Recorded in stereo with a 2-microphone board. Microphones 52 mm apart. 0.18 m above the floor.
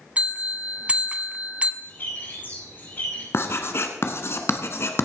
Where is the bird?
40° left (ahead or behind), 7 m.